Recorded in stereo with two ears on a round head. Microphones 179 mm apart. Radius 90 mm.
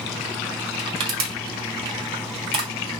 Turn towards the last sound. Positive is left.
turn(degrees=-30)  # may be behind; listen again after turning